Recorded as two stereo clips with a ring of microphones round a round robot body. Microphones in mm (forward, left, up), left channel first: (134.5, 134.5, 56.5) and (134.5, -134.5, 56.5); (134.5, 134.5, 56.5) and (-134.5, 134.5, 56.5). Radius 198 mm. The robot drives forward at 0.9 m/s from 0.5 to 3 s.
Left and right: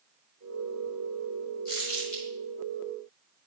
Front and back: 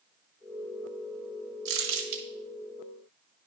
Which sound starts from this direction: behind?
Crumpling, at 1.6 s.